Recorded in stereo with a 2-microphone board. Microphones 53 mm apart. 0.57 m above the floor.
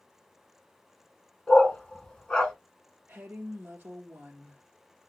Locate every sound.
1.5 s a dog barking: 15° left (ahead or behind), 1.8 m
3.1 s a woman speaking: 30° right (ahead or behind), 1.1 m